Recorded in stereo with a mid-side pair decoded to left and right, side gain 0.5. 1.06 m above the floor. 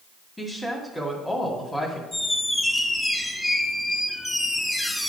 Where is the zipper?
I don't hear a zipper.